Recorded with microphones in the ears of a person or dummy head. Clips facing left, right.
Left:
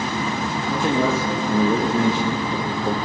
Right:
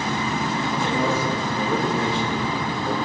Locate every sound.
0.7 s a man speaking: 75° left (ahead or behind), 2.5 m; by 3.0 s 40° left (ahead or behind), 1.6 m